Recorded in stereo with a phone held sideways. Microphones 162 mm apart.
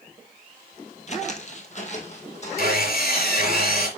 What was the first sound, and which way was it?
Footsteps, 45° left (ahead or behind).